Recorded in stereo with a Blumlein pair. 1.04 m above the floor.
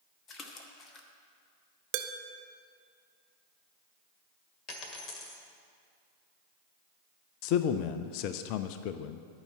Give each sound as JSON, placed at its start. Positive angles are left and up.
{"t": 0.3, "sound": "a splash", "azimuth_deg": 25, "distance_m": 1.3}
{"t": 1.9, "sound": "dishes clattering", "azimuth_deg": -40, "distance_m": 0.6}
{"t": 4.7, "sound": "a dropped coin", "azimuth_deg": 25, "distance_m": 1.8}
{"t": 7.4, "sound": "a man speaking", "azimuth_deg": 45, "distance_m": 0.5}